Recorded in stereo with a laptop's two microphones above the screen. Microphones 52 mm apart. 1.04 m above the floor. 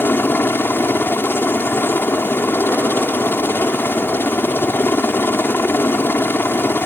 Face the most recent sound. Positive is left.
turn(degrees=45)  # may be behind; listen again after turning